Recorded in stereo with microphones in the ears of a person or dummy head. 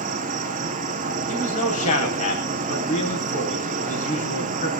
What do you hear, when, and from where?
0.0 s an insect: 30° right (ahead or behind), 1.8 m
1.3 s a man speaking: 45° left (ahead or behind), 7.5 m